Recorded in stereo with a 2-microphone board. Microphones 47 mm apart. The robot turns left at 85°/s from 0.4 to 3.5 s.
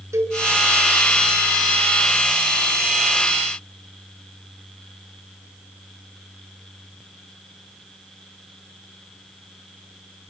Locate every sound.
0.1 s a cowbell: 80° right, 7 m